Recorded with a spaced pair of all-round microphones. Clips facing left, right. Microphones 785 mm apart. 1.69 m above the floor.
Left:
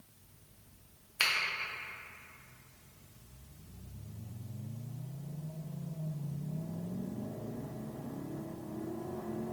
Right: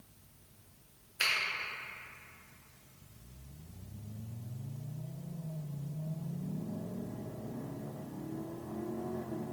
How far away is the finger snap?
About 0.7 m.